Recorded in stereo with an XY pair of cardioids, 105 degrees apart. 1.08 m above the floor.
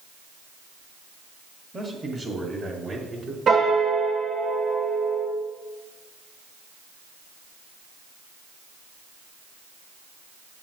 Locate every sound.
1.7 s a man speaking: 25° right, 1.8 m; by 3.4 s 45° right, 2.5 m
3.5 s a piano: 45° right, 1.8 m